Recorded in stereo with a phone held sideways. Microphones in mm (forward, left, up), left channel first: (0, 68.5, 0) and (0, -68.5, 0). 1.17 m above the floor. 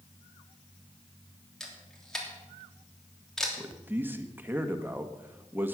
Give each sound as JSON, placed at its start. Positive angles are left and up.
{"t": 1.6, "sound": "a camera shutter", "side_deg": 5, "distance_m": 3.0}
{"t": 3.6, "sound": "a man speaking", "side_deg": -15, "distance_m": 1.5}